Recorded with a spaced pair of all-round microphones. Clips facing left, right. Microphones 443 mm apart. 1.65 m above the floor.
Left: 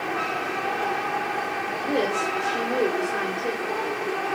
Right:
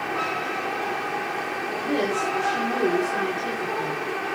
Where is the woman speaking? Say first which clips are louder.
Even; 50° right (ahead or behind), 1.8 m.